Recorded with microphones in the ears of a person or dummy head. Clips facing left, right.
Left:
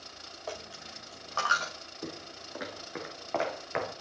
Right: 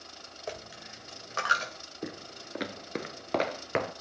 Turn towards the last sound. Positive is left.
turn(degrees=-45)  # may be behind; listen again after turning